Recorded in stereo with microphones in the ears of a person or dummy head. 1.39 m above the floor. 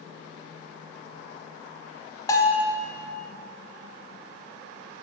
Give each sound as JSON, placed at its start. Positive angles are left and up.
{"t": 2.3, "sound": "a bell", "side_deg": 15, "distance_m": 1.6}